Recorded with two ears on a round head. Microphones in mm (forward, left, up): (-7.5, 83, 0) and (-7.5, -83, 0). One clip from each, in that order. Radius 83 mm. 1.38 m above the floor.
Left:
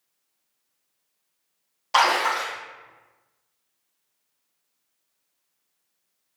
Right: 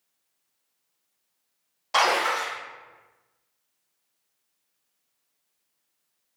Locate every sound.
1.9 s a splash: 5° left (ahead or behind), 0.8 m